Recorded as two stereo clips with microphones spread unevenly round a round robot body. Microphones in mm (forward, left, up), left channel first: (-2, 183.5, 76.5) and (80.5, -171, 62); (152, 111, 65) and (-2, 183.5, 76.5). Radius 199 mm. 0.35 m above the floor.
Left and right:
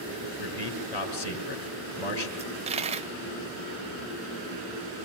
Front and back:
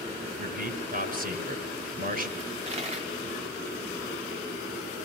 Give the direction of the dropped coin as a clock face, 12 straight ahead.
5 o'clock.